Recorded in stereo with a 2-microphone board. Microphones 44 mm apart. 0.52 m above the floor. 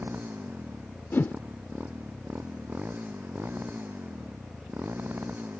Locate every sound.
0.0 s a motorcycle: 45° right (ahead or behind)
1.1 s a whoosh: 50° left (ahead or behind)